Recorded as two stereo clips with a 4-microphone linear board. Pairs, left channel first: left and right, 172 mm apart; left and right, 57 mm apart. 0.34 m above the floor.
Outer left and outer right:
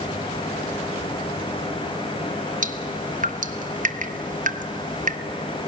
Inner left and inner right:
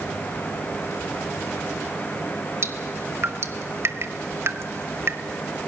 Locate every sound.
2.6 s dripping: 50° right (ahead or behind), 0.9 m